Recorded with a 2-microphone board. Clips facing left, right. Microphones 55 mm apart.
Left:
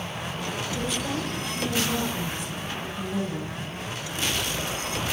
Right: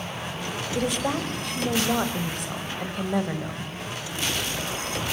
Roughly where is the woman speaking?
Right.